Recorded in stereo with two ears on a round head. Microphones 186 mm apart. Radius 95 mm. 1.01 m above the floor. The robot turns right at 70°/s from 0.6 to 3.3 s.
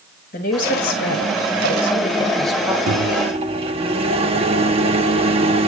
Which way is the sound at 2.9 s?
60° right.